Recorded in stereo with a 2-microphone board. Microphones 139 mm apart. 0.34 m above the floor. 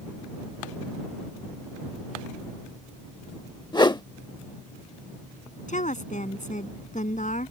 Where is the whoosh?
30° left (ahead or behind).